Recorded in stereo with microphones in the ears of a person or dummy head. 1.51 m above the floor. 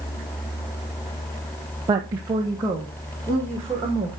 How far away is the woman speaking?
About 0.7 m.